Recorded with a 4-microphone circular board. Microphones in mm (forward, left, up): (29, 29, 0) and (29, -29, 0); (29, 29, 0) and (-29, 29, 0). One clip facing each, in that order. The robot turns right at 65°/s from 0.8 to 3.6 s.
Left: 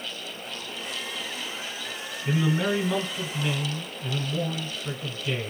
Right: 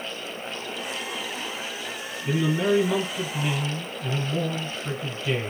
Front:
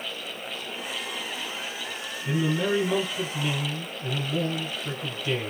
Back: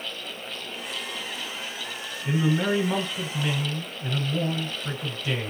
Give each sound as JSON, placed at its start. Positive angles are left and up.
{"t": 2.2, "sound": "a man speaking", "azimuth_deg": 135, "distance_m": 1.2}